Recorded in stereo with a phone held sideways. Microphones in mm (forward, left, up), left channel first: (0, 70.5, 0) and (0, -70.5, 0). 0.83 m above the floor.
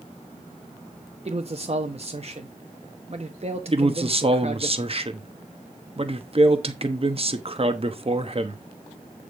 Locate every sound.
1.2 s a man speaking: 45° right (ahead or behind), 1.0 m
3.7 s a man speaking: 45° right (ahead or behind), 1.0 m